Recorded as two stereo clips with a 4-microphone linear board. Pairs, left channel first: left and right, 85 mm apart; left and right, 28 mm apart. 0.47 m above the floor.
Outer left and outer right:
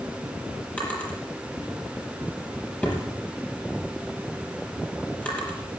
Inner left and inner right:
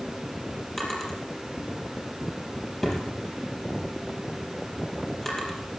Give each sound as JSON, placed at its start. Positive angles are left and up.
{"t": 0.8, "sound": "a drawer", "side_deg": 15, "distance_m": 4.5}